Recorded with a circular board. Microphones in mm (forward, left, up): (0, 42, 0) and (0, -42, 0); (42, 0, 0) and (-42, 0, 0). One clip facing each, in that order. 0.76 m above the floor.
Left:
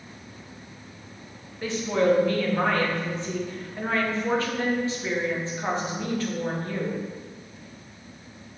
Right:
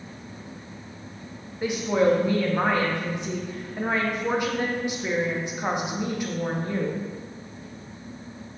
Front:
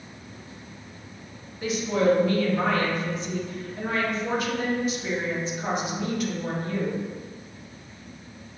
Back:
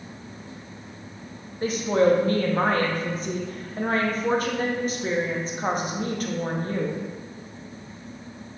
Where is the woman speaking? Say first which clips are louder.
Right 1 dB, back 2 dB; 155° right, 0.7 m.